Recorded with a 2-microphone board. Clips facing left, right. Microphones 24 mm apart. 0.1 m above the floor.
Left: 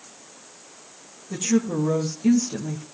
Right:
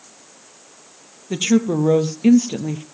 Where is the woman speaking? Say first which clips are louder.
Right 5 dB; 55° right (ahead or behind), 2 m; by 2.8 s 40° right (ahead or behind), 2 m.